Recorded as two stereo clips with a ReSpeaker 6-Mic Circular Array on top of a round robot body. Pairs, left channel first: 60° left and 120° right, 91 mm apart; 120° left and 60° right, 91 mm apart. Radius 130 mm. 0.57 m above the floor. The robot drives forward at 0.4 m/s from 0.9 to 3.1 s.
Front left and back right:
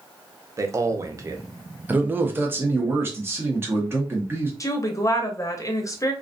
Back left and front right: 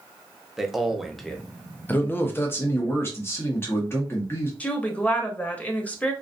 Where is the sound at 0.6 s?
145° right, 0.6 m; by 1.4 s 160° right, 0.8 m.